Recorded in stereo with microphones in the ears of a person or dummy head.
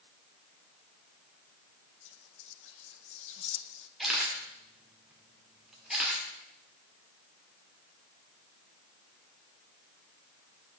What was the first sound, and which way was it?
Whispering, 55° left (ahead or behind).